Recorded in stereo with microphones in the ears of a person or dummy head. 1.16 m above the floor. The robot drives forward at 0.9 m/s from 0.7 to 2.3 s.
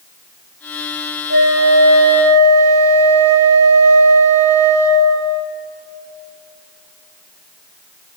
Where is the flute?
70° right (ahead or behind), 1.6 m; by 5.5 s 80° right, 1.6 m.